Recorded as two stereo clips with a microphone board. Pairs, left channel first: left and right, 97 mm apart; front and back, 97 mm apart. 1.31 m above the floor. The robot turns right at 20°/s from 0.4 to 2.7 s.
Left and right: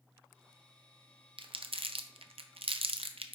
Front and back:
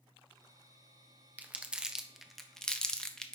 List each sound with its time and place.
1.4 s crumpling: 110° right, 0.6 m; by 3.4 s 80° right, 0.6 m